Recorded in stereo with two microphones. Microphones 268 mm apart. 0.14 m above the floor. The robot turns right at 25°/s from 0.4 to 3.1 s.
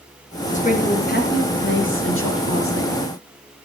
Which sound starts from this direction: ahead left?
A woman speaking, at 0.5 s.